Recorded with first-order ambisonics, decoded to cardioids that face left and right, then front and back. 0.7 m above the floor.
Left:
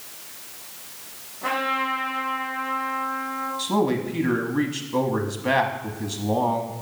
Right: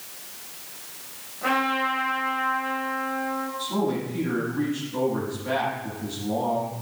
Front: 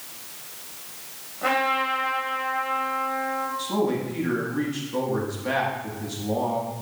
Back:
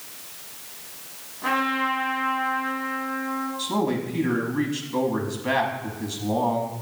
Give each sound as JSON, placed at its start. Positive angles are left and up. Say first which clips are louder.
{"t": 1.4, "sound": "a trumpet", "louder": "right 1 dB, front 1 dB", "azimuth_deg": -10, "distance_m": 3.0}
{"t": 3.6, "sound": "a man speaking", "louder": "left 6 dB, even", "azimuth_deg": 100, "distance_m": 1.1}